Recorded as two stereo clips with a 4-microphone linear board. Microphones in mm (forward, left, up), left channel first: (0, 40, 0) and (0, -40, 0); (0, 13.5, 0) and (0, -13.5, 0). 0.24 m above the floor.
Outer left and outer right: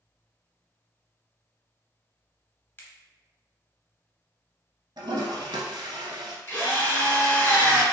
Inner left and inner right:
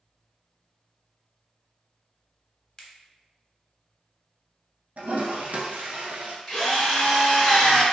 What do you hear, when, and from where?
2.8 s a finger snap: 25° left (ahead or behind), 0.8 m
5.0 s a toilet flushing: 80° right, 0.8 m
6.5 s a drill: 30° left (ahead or behind), 1.9 m